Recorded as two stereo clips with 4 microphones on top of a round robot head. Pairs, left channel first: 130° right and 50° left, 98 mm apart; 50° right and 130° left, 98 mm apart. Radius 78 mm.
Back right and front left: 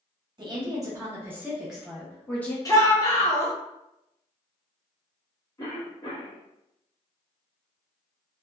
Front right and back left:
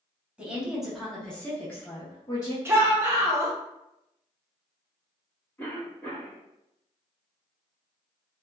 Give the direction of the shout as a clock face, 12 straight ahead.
6 o'clock.